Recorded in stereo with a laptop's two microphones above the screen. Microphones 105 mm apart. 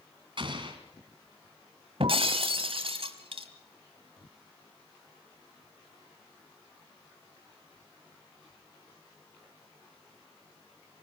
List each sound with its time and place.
0.4 s an explosion: 50° right (ahead or behind), 2 m
2.0 s breaking glass: 60° right (ahead or behind), 1.6 m